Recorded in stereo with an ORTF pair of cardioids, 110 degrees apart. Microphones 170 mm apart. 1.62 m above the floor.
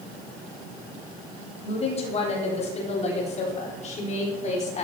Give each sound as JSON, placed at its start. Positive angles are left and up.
{"t": 1.6, "sound": "a woman speaking", "azimuth_deg": 40, "distance_m": 9.0}